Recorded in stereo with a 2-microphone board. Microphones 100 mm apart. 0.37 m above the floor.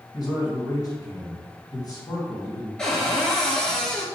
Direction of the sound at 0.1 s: 40° left (ahead or behind).